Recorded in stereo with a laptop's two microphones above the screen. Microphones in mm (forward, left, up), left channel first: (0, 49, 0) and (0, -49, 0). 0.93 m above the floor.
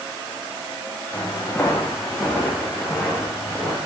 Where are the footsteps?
20° left (ahead or behind), 2.5 m; by 3.8 s 10° right (ahead or behind), 5 m.